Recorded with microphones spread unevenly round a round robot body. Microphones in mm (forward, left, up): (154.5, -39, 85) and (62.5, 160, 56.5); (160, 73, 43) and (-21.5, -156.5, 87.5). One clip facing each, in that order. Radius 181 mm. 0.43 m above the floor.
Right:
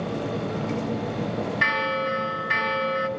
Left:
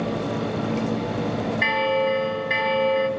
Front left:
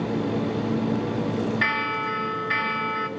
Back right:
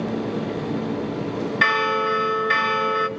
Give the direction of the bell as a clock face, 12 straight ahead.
3 o'clock.